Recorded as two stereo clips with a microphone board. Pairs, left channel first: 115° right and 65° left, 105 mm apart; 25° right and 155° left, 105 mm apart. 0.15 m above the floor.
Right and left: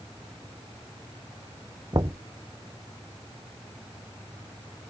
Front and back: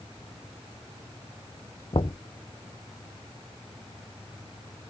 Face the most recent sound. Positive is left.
turn(degrees=15)